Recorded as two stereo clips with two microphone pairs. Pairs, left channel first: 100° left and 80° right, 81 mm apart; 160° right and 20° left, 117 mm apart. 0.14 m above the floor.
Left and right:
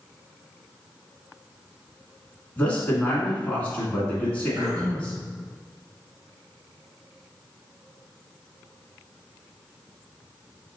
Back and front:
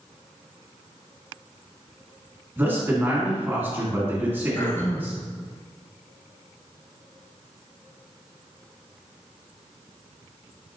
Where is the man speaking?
55° left, 1.6 m.